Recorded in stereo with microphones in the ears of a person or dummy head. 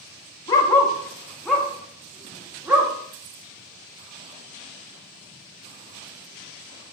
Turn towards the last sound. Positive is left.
turn(degrees=-10)  # may be behind; listen again after turning